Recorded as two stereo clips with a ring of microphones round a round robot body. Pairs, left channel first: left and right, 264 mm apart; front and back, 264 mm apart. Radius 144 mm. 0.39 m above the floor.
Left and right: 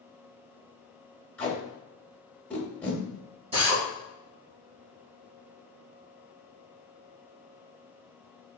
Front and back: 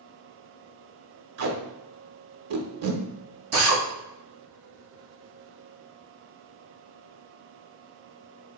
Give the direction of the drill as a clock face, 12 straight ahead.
5 o'clock.